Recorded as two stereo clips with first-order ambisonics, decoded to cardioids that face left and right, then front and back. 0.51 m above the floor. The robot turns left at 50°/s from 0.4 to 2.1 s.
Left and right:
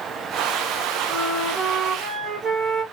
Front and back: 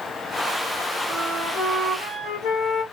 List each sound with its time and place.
1.1 s a flute: 30° left, 1.3 m; by 2.8 s 20° right, 1.3 m